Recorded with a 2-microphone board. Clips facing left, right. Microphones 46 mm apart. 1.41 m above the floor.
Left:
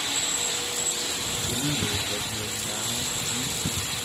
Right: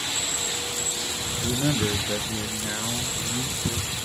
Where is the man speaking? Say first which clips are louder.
Right 5 dB; 70° right (ahead or behind), 0.5 m; by 4.0 s 65° right (ahead or behind), 1.8 m.